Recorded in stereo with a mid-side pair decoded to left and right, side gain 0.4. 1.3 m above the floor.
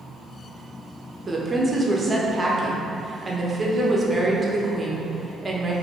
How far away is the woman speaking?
About 0.8 m.